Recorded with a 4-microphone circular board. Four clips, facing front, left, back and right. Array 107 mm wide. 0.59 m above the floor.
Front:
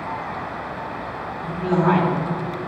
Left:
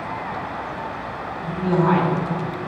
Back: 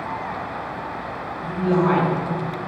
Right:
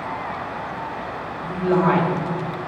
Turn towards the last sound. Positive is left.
turn(degrees=-105)